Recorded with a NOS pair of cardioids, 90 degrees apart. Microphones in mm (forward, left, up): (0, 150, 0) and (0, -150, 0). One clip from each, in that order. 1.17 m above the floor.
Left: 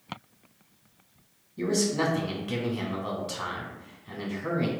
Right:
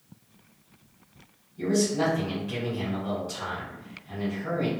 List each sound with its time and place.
1.6 s a man speaking: 65° left, 1.5 m